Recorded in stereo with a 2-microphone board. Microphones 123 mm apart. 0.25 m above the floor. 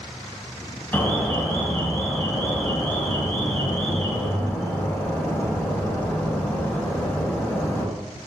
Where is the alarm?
15° left (ahead or behind), 1.0 m.